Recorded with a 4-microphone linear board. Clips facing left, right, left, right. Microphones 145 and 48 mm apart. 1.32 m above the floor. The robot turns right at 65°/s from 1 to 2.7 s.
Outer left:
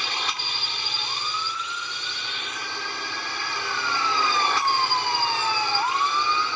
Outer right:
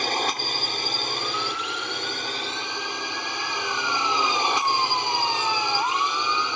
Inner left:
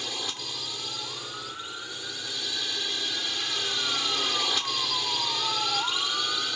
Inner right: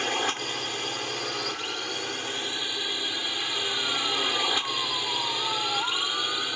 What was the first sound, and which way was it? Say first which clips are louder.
A drone: outer right 6 dB, inner right 7 dB; 130° right.